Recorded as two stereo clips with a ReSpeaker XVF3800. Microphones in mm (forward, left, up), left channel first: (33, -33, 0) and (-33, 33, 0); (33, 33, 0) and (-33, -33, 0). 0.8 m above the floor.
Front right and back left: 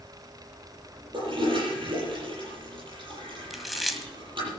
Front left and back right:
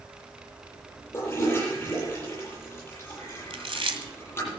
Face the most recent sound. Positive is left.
turn(degrees=-135)